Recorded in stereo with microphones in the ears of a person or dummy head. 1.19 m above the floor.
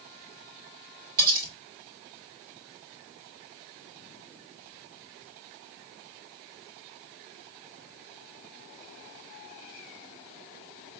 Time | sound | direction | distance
1.2 | cutlery clinking | 50° right (ahead or behind) | 3.5 m